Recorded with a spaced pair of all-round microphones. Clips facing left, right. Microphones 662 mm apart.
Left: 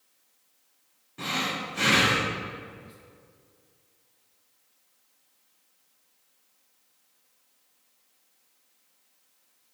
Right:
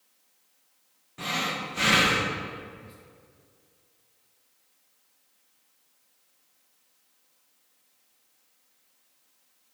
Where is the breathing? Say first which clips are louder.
Left 1 dB; 15° right (ahead or behind), 0.7 m.